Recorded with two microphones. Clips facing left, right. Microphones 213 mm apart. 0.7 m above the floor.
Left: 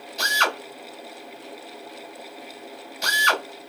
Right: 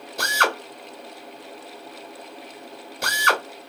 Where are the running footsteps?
No running footsteps in this recording.